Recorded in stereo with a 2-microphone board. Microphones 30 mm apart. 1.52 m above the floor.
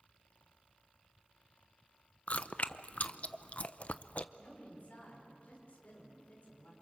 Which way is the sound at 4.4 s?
50° left (ahead or behind).